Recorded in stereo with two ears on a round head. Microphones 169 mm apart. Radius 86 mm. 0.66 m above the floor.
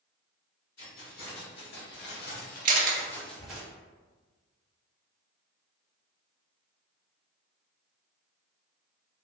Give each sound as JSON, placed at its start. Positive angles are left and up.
{"t": 0.8, "sound": "keys jangling", "side_deg": 55, "distance_m": 1.8}
{"t": 2.6, "sound": "a camera shutter", "side_deg": -45, "distance_m": 0.6}